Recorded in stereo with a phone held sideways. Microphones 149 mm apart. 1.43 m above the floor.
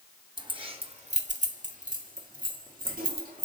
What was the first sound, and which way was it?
Keys jangling, 30° right (ahead or behind).